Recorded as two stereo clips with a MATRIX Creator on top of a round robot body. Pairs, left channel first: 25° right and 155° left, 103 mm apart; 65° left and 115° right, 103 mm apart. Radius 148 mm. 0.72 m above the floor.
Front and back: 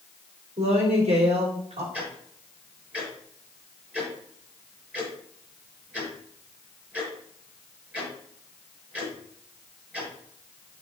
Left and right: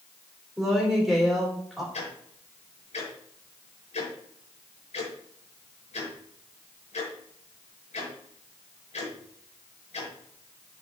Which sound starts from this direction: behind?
A woman speaking, at 0.6 s.